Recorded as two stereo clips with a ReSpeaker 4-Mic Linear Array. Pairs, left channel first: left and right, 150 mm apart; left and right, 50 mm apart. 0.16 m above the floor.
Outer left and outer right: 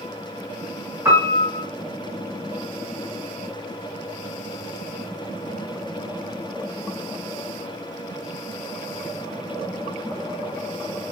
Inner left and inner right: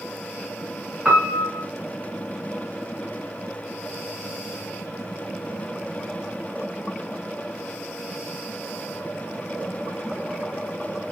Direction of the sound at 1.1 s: 20° right (ahead or behind).